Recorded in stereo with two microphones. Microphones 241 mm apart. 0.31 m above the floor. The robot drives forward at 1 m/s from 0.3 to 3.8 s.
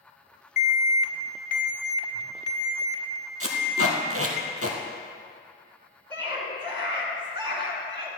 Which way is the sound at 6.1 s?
20° right (ahead or behind).